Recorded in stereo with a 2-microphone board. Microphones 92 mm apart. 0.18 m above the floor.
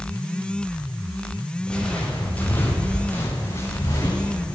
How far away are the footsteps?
About 3.5 m.